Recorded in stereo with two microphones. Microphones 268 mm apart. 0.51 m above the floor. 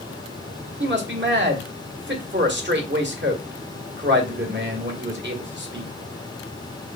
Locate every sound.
0.8 s a man speaking: 40° right (ahead or behind), 1.3 m